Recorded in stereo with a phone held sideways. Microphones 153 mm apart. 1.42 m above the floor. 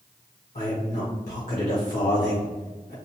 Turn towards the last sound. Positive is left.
turn(degrees=55)  # may be behind; listen again after turning